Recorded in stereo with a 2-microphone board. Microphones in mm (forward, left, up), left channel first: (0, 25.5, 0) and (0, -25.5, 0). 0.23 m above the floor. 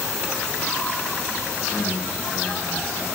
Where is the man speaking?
5° left (ahead or behind), 4 m.